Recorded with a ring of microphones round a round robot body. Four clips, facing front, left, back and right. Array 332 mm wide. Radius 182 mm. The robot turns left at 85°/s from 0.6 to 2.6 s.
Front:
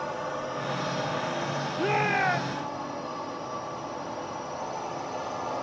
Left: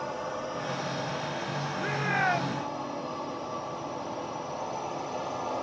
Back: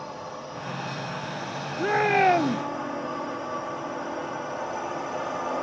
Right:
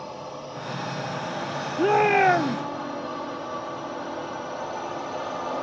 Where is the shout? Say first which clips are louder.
Right 12 dB, back 5 dB; 90° right; by 2.6 s 155° right.